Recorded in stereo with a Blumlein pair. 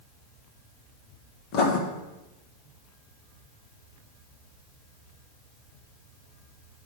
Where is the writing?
35° left, 1.5 m.